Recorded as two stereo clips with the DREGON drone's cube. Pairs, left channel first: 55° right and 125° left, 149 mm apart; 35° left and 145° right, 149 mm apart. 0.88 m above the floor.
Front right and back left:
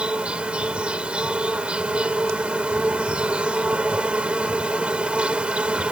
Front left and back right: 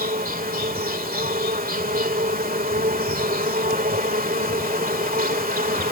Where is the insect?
155° right.